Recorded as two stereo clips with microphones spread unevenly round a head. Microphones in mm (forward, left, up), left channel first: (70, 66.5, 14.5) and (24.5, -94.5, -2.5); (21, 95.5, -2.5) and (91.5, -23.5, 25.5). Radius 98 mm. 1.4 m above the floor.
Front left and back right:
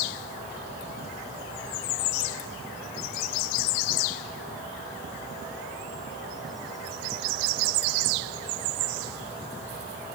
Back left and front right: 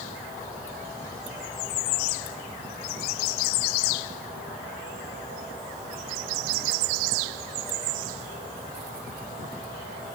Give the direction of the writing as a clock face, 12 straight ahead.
No writing in this recording.